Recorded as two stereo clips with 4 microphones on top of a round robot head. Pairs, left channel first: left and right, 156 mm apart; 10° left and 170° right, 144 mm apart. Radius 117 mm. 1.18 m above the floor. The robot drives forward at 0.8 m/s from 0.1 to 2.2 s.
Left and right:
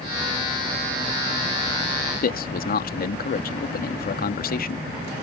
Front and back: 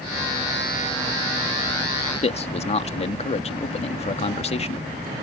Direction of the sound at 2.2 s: 60° left.